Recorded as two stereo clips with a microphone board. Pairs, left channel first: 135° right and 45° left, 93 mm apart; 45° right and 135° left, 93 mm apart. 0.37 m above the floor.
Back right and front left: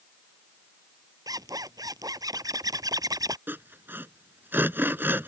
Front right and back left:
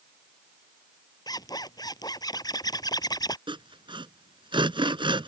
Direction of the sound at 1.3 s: Straight ahead.